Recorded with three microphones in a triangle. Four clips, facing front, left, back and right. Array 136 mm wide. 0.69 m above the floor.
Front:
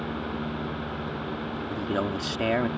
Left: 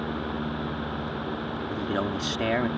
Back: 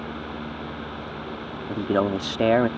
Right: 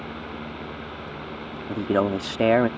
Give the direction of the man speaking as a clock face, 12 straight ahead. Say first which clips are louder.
Right 8 dB, back 7 dB; 4 o'clock.